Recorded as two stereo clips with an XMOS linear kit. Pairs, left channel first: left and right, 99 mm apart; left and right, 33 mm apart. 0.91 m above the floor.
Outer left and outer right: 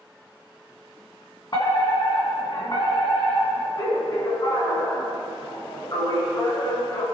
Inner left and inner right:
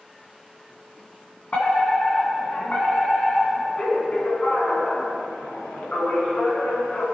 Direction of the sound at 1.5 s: 45° left (ahead or behind).